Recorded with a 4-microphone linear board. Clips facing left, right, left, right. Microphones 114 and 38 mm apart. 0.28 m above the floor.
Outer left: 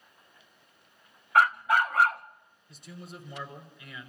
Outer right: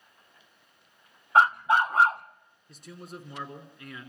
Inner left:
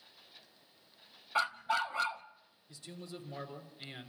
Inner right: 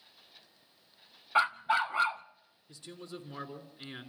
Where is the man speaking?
45° right (ahead or behind), 4 m.